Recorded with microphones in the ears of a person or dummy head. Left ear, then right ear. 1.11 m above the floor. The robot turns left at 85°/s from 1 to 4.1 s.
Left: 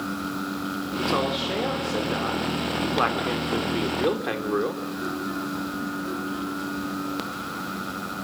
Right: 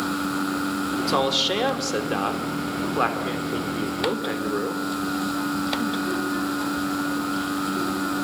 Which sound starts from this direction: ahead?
A man speaking, at 0.9 s.